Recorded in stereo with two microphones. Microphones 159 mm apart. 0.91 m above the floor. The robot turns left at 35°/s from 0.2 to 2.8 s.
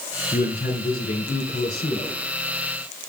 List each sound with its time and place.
0.3 s a man speaking: 125° left, 3 m; by 2.2 s 60° left, 3 m